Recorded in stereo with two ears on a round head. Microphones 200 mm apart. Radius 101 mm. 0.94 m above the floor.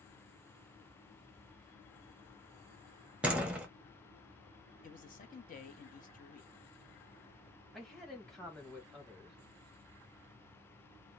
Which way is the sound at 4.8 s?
35° left (ahead or behind).